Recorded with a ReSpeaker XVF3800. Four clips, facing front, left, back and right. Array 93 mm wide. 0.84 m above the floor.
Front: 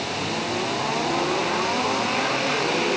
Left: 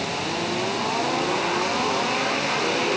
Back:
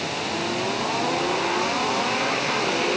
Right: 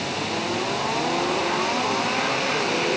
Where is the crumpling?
I don't hear crumpling.